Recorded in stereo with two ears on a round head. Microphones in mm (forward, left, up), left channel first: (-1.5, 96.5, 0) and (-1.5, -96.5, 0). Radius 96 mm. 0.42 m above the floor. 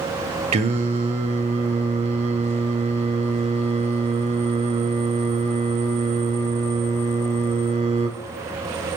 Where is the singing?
30° right (ahead or behind), 0.9 m.